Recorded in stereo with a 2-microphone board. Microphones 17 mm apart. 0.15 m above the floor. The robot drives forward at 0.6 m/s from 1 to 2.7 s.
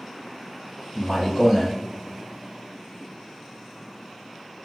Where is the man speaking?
15° left (ahead or behind), 1.6 m; by 1.7 s 10° left (ahead or behind), 1.7 m.